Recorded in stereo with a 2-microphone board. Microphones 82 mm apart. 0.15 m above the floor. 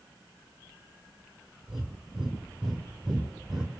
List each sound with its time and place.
1.7 s breathing: 5° right (ahead or behind), 2.5 m